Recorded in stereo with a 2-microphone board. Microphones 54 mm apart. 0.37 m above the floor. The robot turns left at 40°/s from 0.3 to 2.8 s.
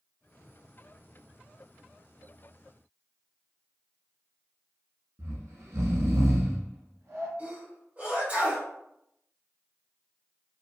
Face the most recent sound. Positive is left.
turn(degrees=-35)  # may be behind; listen again after turning